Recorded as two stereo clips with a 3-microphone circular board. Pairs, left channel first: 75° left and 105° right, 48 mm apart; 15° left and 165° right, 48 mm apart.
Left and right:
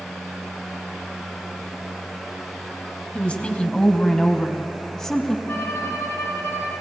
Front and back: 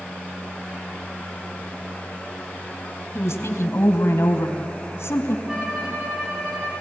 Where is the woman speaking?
10° left, 3 m; by 5.4 s 5° right, 4 m.